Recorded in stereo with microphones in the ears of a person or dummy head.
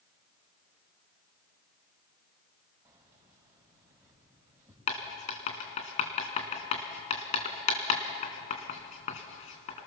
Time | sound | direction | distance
2.9 | keys jangling | 15° right (ahead or behind) | 4 m
4.9 | writing | 35° left (ahead or behind) | 2.5 m